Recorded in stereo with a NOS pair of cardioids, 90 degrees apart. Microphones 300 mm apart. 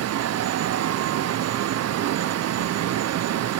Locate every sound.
0.0 s a fan: 60° right, 1.1 m